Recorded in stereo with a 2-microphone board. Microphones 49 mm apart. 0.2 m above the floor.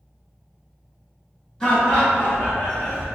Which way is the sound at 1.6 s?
15° left (ahead or behind).